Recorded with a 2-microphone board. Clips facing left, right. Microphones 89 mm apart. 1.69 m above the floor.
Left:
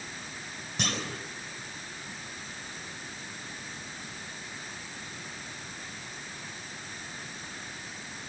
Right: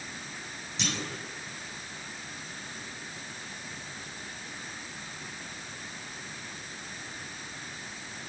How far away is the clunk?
About 4 m.